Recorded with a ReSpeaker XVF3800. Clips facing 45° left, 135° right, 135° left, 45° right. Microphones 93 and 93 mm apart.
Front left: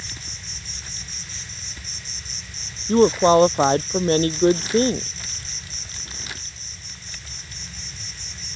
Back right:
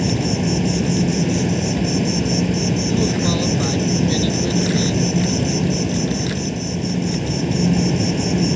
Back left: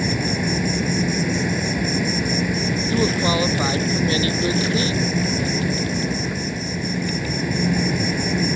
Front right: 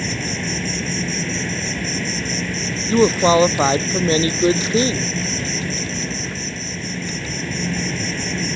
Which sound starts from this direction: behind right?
An insect, at 0.0 s.